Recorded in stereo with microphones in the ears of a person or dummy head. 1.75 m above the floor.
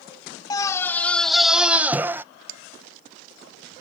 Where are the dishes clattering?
85° right.